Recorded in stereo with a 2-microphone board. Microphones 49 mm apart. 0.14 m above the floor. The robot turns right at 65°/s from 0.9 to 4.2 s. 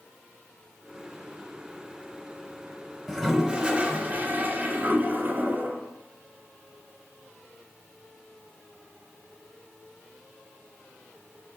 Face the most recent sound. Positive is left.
turn(degrees=-100)